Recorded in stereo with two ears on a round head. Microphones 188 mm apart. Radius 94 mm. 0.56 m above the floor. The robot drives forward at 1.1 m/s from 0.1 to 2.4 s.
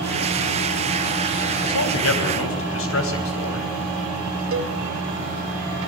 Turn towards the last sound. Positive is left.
turn(degrees=-70)  # may be behind; listen again after turning